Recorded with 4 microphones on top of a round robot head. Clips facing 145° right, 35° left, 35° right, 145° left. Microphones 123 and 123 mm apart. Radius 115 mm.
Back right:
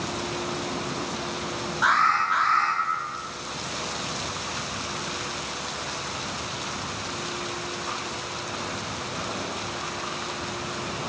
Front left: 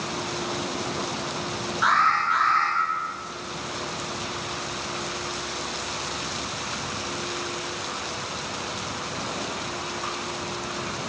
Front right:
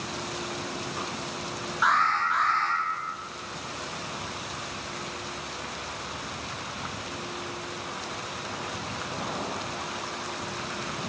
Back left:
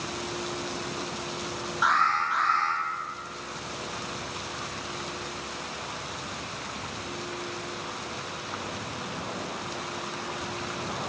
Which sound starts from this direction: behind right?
An alarm, at 1.8 s.